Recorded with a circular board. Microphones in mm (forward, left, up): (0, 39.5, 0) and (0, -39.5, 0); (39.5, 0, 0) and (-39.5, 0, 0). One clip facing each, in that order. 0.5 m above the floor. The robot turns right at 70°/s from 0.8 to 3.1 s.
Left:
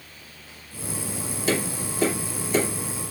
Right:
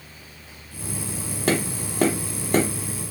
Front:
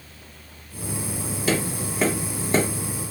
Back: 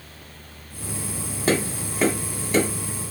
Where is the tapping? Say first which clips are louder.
Right 2 dB, back 2 dB; 130° right, 1.2 m; by 2.7 s 45° right, 1.2 m.